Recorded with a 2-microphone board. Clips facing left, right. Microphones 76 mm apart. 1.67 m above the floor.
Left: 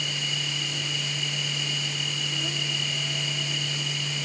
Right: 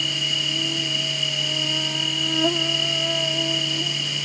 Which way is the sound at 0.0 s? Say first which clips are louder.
Right 4 dB; 65° right (ahead or behind).